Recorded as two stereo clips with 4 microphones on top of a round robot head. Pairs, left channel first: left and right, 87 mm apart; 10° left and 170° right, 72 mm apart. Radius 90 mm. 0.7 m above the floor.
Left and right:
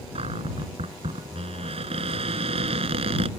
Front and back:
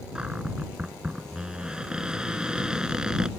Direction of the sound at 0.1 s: 90° right.